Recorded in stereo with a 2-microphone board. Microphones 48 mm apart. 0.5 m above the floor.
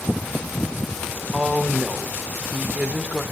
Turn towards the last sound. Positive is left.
turn(degrees=-25)  # may be behind; listen again after turning